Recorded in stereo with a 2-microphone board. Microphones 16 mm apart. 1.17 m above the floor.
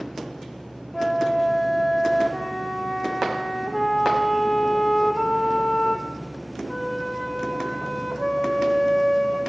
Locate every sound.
0.9 s a flute: 5° right (ahead or behind), 5.5 m